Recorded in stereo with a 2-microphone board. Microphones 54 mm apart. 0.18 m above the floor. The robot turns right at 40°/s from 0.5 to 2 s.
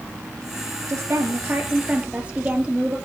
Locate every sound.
0.9 s a woman speaking: 70° right, 3.5 m; by 3.0 s 25° right, 3.5 m